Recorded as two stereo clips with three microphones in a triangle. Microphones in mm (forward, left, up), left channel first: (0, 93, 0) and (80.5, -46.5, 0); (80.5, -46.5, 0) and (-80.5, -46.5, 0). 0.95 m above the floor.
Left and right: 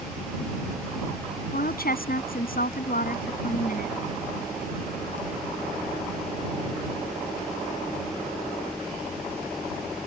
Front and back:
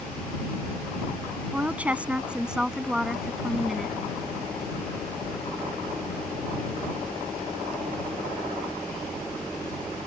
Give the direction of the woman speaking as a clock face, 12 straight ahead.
9 o'clock.